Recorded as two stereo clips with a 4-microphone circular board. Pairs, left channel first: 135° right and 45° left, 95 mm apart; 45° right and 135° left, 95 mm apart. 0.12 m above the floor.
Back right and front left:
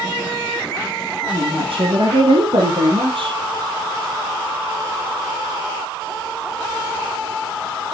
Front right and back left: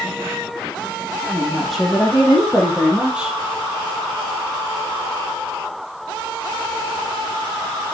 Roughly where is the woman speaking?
Ahead left.